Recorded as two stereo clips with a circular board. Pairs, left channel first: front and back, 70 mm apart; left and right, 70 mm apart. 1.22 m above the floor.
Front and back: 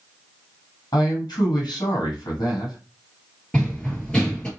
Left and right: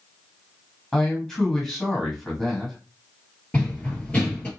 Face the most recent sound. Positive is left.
turn(degrees=60)